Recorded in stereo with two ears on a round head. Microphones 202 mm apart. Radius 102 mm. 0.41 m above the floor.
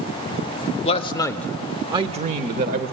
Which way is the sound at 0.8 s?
30° left (ahead or behind).